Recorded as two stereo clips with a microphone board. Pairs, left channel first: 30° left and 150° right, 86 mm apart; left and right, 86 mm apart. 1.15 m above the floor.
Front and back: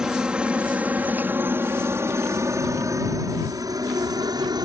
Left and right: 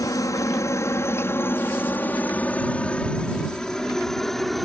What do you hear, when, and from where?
0.0 s a helicopter: 130° left; by 4.7 s straight behind